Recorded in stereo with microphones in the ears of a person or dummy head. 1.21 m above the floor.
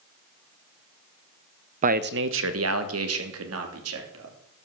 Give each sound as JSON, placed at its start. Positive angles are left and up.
{"t": 1.8, "sound": "a man speaking", "side_deg": -40, "distance_m": 0.7}